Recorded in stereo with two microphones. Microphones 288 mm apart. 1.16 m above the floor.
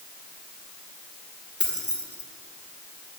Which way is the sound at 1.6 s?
40° left (ahead or behind).